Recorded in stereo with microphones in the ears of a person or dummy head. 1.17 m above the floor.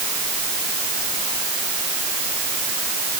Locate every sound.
Only background noise.